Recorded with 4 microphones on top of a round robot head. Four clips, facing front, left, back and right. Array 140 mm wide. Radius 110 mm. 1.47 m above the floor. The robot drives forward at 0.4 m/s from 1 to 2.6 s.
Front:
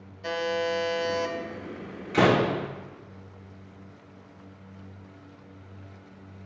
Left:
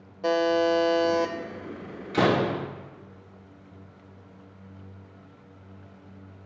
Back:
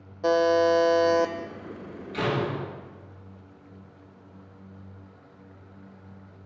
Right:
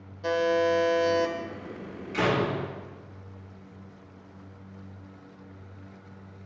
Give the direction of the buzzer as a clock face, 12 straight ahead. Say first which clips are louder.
Left 2 dB, back 8 dB; 7 o'clock.